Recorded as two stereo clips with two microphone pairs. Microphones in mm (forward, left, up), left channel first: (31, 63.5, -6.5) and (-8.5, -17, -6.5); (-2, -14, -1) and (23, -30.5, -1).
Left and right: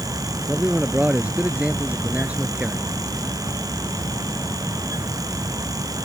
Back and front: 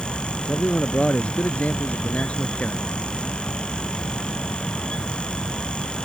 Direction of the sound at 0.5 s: 170° left.